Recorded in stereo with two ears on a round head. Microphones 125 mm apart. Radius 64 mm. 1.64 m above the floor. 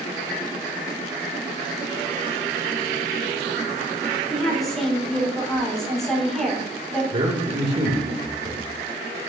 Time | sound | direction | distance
4.3 | a woman speaking | centre (ahead or behind) | 5 m
7.1 | a man speaking | 50° right (ahead or behind) | 3 m